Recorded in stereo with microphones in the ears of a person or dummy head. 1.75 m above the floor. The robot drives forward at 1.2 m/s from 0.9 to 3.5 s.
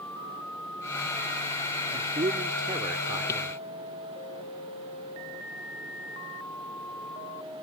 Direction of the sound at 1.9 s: 30° right (ahead or behind).